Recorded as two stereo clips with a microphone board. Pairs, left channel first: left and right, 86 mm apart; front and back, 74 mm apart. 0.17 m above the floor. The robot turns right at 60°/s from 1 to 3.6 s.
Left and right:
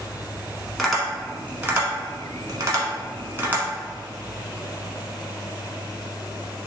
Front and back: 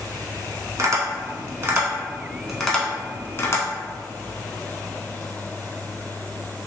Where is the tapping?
Straight behind, 0.9 m; by 3.6 s 25° right, 0.9 m.